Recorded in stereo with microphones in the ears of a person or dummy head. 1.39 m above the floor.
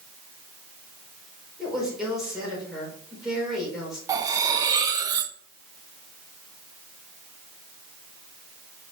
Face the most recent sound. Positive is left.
turn(degrees=-20)  # may be behind; listen again after turning